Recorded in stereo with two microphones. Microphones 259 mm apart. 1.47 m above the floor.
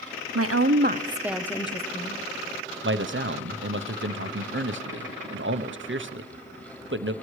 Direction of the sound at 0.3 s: 65° right (ahead or behind).